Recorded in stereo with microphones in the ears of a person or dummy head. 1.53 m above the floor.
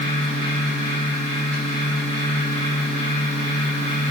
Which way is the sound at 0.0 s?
45° right (ahead or behind).